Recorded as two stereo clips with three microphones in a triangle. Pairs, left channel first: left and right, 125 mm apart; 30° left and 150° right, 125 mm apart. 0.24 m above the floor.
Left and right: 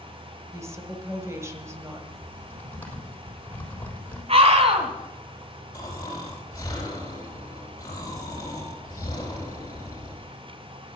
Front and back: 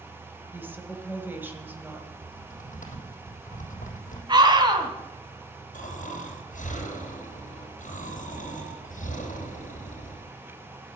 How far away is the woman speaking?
About 1.6 m.